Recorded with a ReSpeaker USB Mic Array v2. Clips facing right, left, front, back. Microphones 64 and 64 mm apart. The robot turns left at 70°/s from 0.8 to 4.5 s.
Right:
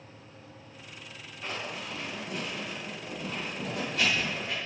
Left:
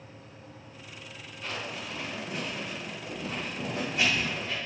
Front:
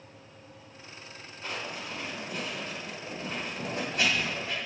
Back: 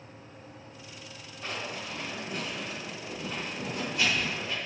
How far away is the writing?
About 2.0 m.